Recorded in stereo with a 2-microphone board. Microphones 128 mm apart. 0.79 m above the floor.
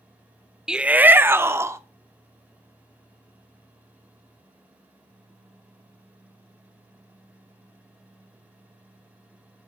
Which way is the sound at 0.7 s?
5° right (ahead or behind).